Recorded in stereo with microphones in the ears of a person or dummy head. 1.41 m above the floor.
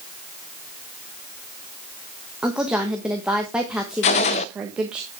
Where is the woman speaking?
5° right (ahead or behind), 1.3 m.